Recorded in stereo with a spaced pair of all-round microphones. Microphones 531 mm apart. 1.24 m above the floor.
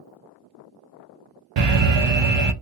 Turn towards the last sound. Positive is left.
turn(degrees=-55)  # may be behind; listen again after turning